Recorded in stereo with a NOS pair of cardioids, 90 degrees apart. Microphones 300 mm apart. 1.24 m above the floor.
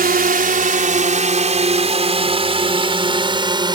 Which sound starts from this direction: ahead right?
A drone, at 0.0 s.